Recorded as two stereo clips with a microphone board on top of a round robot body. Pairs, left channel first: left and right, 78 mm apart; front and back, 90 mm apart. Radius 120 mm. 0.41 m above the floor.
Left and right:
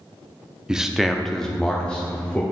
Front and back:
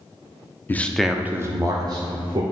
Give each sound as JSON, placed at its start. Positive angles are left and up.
{"t": 0.7, "sound": "a man speaking", "azimuth_deg": -25, "distance_m": 0.8}